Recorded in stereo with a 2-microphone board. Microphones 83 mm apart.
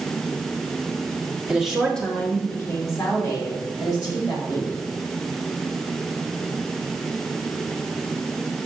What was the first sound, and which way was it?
A woman speaking, 10° right (ahead or behind).